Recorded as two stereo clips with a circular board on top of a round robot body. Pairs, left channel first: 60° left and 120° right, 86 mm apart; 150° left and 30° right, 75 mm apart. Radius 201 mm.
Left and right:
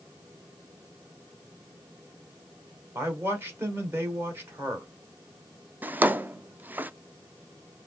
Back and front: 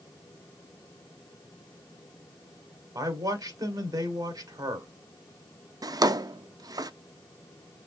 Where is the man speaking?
60° right, 2 m.